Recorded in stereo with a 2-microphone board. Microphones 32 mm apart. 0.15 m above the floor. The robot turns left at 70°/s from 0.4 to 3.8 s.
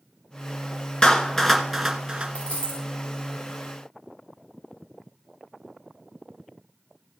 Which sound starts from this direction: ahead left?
A dropped coin, at 2.4 s.